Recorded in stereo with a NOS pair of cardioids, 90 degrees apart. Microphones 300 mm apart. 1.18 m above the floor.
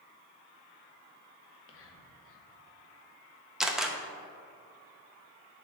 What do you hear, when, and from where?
1.4 s whispering: 50° left, 1.3 m
3.6 s a camera shutter: straight ahead, 0.8 m